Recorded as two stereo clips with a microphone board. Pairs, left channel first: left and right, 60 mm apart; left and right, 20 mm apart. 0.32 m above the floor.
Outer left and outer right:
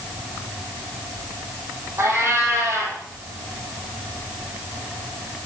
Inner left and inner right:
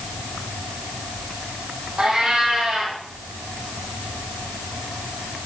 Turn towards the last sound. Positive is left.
turn(degrees=-45)  # may be behind; listen again after turning